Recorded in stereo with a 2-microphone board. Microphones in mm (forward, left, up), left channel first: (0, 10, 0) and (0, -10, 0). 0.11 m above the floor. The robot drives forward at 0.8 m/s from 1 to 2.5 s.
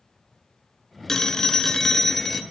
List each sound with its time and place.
1.1 s a phone ringing: 20° left (ahead or behind), 0.7 m; by 2.4 s 10° left (ahead or behind), 1.0 m